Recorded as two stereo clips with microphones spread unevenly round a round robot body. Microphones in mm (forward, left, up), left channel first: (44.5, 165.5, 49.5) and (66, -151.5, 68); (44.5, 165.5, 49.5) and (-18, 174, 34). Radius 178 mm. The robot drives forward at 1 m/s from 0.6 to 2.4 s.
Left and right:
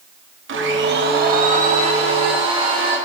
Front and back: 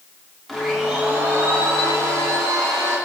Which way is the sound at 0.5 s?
110° right.